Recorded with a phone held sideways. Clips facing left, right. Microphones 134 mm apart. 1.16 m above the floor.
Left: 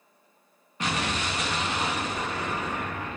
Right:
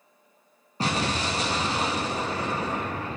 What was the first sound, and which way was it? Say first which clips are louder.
An explosion: right 3 dB; 35° right (ahead or behind).